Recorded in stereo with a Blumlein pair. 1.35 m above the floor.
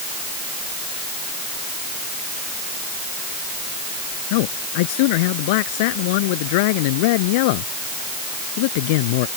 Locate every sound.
4.3 s a man speaking: 50° left